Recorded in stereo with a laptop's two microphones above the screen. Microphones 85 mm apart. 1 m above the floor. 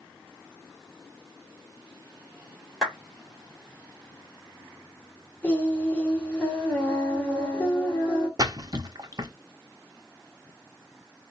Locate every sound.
2.8 s a clap: 5° right (ahead or behind), 2 m
5.4 s singing: 15° left (ahead or behind), 1.0 m
8.4 s a splash: 45° right (ahead or behind), 0.8 m